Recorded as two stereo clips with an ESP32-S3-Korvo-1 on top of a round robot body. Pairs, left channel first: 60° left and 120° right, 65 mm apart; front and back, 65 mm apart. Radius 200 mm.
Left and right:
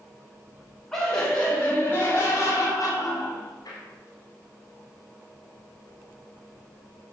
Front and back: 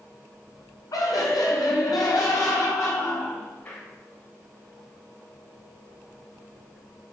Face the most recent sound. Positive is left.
turn(degrees=55)